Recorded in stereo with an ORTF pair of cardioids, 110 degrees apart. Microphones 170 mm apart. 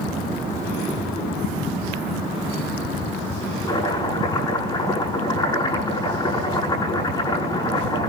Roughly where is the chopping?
Ahead left.